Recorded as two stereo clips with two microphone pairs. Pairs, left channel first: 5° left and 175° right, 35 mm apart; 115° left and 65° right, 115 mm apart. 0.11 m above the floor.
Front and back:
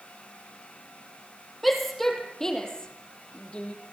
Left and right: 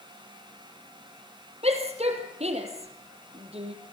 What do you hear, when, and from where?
1.6 s a shout: 80° right, 4 m; by 3.8 s 45° right, 4.5 m